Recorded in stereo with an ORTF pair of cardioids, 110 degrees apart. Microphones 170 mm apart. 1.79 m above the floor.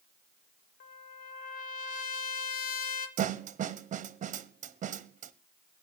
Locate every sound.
0.8 s a trumpet: 65° left, 2 m
3.2 s a snare drum: 45° right, 1.2 m